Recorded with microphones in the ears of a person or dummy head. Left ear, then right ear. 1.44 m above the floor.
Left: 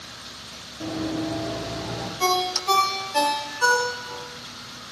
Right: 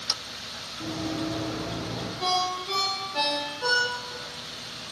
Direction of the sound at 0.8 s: 45° left (ahead or behind).